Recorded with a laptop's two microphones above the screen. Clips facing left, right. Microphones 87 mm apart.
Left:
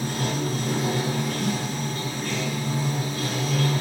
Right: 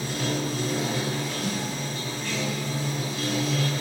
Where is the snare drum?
60° left (ahead or behind), 2 m.